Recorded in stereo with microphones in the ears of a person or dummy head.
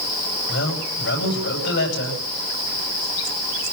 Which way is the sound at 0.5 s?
60° left (ahead or behind).